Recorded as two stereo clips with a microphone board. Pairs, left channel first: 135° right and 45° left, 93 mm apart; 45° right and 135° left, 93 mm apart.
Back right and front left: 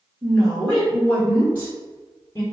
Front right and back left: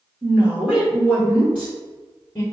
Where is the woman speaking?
145° left, 1.4 m; by 2.4 s 85° right, 1.8 m.